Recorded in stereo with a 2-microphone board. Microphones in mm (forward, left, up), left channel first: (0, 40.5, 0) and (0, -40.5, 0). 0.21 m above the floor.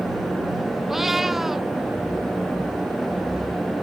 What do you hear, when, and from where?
0.9 s a cat meowing: 5° right (ahead or behind)